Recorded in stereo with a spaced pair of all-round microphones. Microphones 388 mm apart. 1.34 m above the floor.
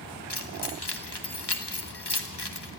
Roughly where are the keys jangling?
Left.